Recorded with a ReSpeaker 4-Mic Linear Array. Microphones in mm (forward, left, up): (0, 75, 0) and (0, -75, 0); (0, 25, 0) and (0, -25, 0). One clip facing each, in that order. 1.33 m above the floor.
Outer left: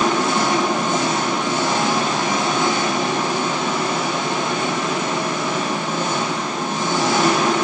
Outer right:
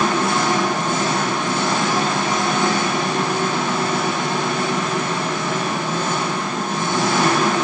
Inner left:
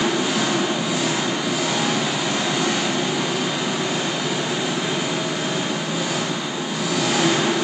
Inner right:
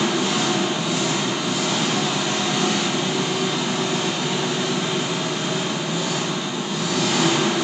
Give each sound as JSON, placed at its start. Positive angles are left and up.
{"t": 0.0, "sound": "an engine running", "side_deg": 20, "distance_m": 4.5}